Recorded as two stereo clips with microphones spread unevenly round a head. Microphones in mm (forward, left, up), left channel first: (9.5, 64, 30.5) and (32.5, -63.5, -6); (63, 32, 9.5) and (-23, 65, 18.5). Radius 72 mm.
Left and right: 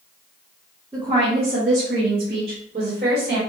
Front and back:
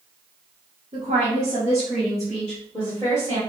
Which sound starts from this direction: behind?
A woman speaking, at 0.9 s.